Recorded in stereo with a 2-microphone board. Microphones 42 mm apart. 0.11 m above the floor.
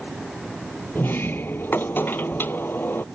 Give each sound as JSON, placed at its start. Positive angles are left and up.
{"t": 0.9, "sound": "a sliding door", "side_deg": 60}